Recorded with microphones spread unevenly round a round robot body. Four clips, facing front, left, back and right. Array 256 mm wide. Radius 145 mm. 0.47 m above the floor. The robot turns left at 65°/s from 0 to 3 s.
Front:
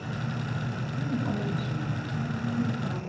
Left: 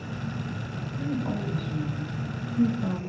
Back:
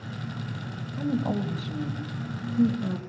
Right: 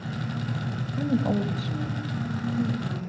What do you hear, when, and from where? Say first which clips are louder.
1.0 s a woman speaking: right 5 dB, back 4 dB; 100° right, 3 m; by 3.0 s 130° left, 3 m